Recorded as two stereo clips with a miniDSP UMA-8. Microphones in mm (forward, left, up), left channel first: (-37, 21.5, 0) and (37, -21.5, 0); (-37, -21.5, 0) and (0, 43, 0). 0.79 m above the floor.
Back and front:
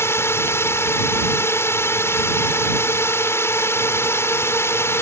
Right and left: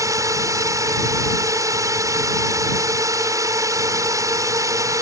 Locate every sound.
0.0 s a drone: 95° left